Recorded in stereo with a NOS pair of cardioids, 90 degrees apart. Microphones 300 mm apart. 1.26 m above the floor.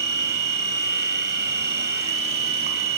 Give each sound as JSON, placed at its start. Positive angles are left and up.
{"t": 0.0, "sound": "a machine running", "azimuth_deg": -35, "distance_m": 1.2}